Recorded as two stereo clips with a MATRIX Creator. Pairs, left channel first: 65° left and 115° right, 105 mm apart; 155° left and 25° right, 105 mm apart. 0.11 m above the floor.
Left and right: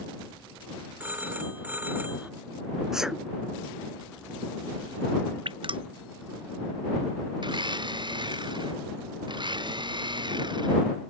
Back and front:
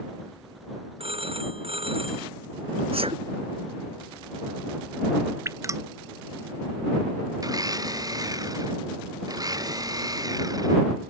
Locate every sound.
1.0 s a phone ringing: 40° right
2.9 s a sneeze: 25° right
5.5 s dripping: 80° right
7.4 s a blender: 75° right